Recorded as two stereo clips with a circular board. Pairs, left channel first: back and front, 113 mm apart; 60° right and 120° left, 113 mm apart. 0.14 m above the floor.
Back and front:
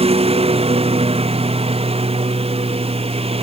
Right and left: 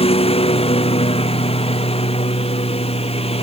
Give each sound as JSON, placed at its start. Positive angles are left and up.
{"t": 0.0, "sound": "a lawn mower", "azimuth_deg": -30}